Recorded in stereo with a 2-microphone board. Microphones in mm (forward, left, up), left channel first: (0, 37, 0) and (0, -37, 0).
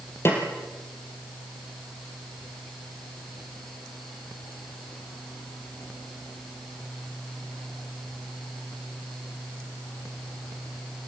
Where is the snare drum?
35° left (ahead or behind), 4 m.